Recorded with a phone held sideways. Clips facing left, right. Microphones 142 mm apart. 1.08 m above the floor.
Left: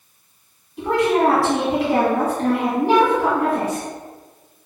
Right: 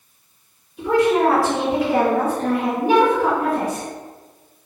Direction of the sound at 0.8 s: 70° left (ahead or behind).